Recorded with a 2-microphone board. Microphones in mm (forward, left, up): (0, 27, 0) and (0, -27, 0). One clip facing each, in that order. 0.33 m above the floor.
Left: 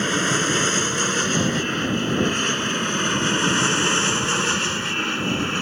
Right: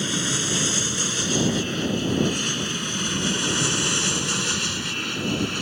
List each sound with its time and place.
0.0 s an aircraft: 40° left (ahead or behind); by 5.6 s 35° left (ahead or behind)